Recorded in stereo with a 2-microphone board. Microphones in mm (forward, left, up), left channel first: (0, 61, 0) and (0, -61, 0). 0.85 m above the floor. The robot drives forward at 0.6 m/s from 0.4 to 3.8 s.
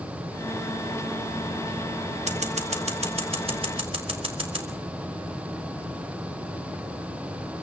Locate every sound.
2.3 s scissors: 60° right (ahead or behind), 1.6 m; by 4.7 s 45° right (ahead or behind), 2.0 m